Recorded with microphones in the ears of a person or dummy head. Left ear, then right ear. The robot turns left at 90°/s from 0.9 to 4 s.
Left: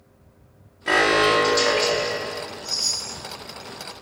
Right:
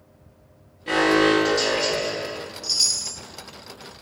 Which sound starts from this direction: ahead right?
A chime, at 2.6 s.